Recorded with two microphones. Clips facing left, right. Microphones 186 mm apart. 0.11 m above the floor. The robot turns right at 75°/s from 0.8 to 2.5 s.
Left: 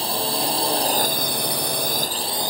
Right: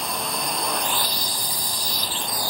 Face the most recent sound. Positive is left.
turn(degrees=160)